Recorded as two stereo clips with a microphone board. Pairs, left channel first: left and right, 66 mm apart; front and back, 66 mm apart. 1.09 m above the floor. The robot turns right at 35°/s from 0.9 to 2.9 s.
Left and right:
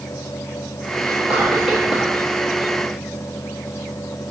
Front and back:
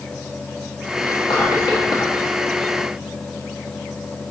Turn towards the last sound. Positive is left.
turn(degrees=40)